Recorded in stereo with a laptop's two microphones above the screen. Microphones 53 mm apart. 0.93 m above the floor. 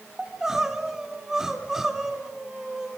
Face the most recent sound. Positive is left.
turn(degrees=-5)  # may be behind; listen again after turning